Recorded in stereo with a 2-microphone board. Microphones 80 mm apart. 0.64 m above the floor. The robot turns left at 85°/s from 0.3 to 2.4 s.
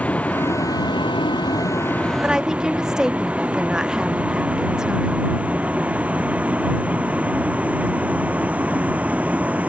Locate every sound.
0.0 s a vehicle: 20° left (ahead or behind); by 9.7 s 20° right (ahead or behind)
2.2 s a woman speaking: 15° right (ahead or behind); by 5.3 s 10° right (ahead or behind)